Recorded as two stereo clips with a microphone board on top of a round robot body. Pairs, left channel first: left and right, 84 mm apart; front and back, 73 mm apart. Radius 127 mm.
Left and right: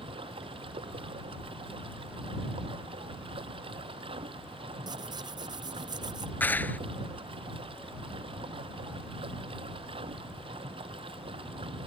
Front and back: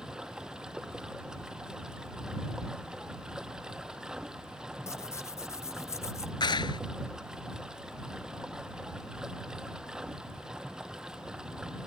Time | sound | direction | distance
0.0 | running water | 100° right | ?
4.9 | tearing paper | 50° right | ?
6.4 | a clap | 20° left | ?